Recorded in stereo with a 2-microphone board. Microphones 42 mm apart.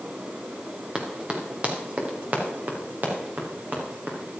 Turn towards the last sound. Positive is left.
turn(degrees=-55)  # may be behind; listen again after turning